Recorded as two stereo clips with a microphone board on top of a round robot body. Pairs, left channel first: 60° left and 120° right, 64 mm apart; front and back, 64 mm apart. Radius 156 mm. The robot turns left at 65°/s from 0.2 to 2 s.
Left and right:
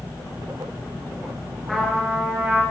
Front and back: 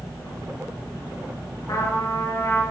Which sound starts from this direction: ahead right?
A trumpet, at 1.7 s.